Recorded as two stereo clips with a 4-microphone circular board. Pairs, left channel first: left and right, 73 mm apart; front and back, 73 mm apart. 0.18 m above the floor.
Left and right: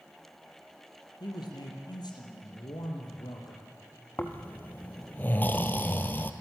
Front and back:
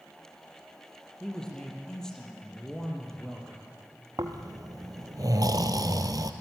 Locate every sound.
1.2 s a man speaking: 80° left, 5 m
4.2 s snoring: 155° left, 1.5 m